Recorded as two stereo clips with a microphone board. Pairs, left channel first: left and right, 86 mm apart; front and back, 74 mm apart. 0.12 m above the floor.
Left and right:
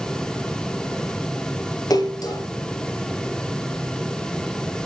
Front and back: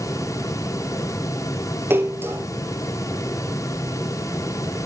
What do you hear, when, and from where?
1.9 s a splash: 125° left, 2.5 m